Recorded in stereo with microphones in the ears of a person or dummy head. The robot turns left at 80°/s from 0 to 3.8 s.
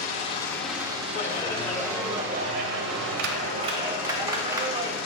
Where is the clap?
55° left, 0.8 m; by 5.0 s 160° right, 0.8 m.